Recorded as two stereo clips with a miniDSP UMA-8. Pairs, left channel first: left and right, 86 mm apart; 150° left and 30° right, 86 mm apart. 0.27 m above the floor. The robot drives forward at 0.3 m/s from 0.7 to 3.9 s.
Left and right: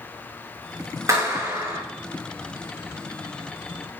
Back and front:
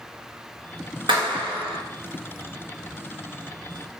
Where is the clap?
40° right, 3 m; by 1.8 s 45° right, 3 m.